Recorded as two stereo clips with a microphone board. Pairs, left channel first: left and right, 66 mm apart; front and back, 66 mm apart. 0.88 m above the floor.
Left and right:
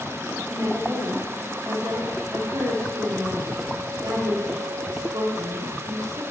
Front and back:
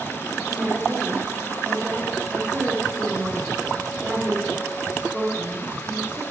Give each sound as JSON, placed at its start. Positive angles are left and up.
{"t": 0.5, "sound": "a woman speaking", "azimuth_deg": -110, "distance_m": 1.8}